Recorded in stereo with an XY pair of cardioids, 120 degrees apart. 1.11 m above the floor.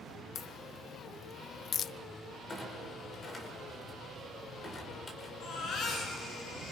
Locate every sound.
0.3 s a crack: 50° left, 0.5 m
2.5 s a clunk: 25° left, 5 m
5.4 s a baby crying: 60° left, 8.5 m